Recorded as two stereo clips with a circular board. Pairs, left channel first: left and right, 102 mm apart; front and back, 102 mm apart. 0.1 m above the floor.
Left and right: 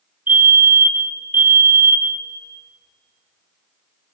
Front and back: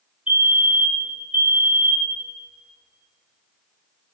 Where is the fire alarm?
120° right, 2 m.